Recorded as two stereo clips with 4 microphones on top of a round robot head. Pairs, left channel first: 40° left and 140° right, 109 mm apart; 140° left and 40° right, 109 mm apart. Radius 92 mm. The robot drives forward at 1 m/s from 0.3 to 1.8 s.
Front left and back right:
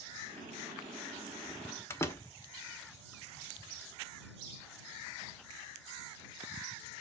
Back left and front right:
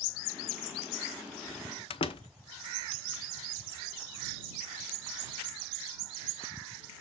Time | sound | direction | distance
1.9 | a door slam | 105° left | 1.0 m